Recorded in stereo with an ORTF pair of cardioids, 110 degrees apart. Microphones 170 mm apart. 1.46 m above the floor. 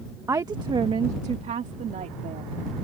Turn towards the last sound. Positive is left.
turn(degrees=-50)